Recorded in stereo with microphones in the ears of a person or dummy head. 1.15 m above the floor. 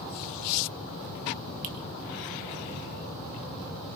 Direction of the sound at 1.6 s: 40° right (ahead or behind).